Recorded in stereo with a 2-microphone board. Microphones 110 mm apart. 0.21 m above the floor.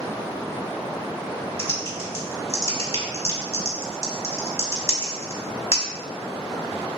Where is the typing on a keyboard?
25° left (ahead or behind), 0.6 m.